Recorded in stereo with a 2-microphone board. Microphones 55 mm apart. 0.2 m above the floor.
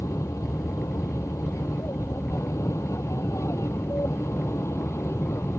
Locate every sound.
0.0 s an aircraft: 65° left (ahead or behind); by 5.6 s 55° left (ahead or behind)